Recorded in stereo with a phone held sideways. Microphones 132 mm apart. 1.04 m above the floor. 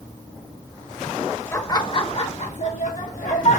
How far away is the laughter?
About 0.8 m.